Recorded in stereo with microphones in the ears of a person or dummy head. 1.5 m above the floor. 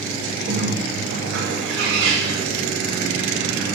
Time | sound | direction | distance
0.5 | a bird | 85° right | 5 m